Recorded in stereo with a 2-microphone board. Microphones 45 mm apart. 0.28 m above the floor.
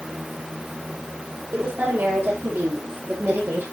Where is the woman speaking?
50° right (ahead or behind), 9.5 m; by 3.6 s 60° right (ahead or behind), 10 m.